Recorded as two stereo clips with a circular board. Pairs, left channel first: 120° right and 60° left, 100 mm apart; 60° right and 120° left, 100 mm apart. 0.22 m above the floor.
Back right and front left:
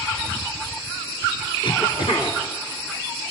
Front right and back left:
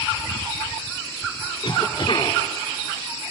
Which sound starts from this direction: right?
A cough, at 1.6 s.